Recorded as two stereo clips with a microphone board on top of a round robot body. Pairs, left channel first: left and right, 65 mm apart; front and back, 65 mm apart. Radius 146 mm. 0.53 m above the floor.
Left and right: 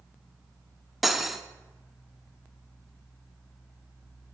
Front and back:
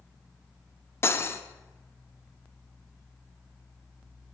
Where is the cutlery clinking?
5° right, 0.5 m.